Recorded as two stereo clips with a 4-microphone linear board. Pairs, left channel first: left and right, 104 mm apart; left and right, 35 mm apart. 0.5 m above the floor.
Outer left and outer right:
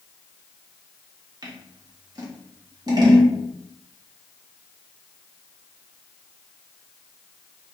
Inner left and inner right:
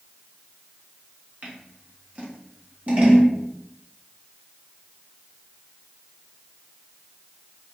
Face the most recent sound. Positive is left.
turn(degrees=-35)  # may be behind; listen again after turning